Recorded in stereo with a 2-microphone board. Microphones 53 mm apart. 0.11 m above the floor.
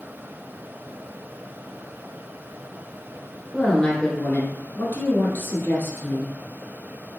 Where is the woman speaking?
15° left (ahead or behind), 1.5 m; by 6.4 s 50° left (ahead or behind), 1.9 m.